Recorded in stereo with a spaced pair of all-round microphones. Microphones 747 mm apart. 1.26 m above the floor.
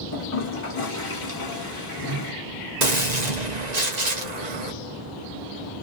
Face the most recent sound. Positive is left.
turn(degrees=-65)  # may be behind; listen again after turning